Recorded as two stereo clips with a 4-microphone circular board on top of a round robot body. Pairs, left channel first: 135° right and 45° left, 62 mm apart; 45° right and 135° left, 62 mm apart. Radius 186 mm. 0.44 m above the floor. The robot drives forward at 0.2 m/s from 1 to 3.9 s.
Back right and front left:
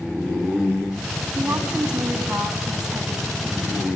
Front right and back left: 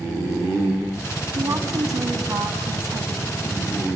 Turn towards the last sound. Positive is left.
turn(degrees=125)